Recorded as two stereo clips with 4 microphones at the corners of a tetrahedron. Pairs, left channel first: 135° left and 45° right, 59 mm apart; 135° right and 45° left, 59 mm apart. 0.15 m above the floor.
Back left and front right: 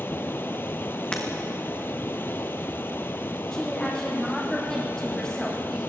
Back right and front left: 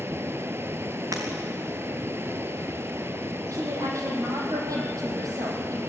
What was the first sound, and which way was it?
Running water, 90° left.